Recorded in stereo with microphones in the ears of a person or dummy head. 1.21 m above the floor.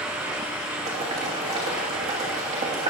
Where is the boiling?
30° right (ahead or behind), 2.5 m.